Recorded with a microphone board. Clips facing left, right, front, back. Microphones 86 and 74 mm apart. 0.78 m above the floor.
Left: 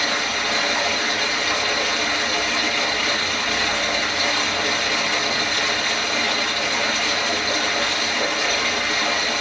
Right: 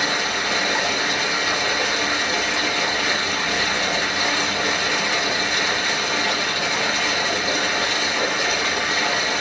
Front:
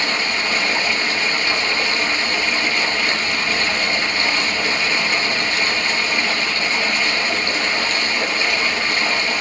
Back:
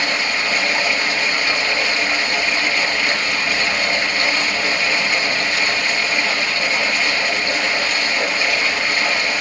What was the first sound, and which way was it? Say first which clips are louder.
Running water: even, back 1 dB; 120° right.